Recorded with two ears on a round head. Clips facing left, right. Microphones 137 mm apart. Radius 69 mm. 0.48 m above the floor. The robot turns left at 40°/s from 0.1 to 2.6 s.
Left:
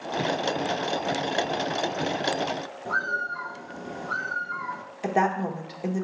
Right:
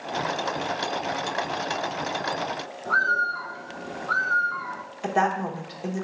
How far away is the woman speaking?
About 1.0 m.